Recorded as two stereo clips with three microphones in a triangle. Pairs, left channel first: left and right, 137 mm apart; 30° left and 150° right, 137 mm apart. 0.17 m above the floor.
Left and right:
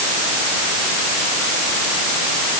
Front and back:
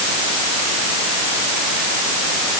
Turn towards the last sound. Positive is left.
No sound to turn to.